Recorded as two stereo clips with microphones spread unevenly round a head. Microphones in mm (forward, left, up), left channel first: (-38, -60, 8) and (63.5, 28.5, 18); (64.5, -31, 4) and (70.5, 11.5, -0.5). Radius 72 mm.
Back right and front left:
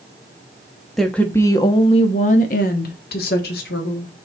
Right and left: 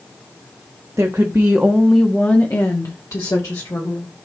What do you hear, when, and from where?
1.0 s a woman speaking: 135° left, 1.2 m; by 4.1 s 145° right, 2.5 m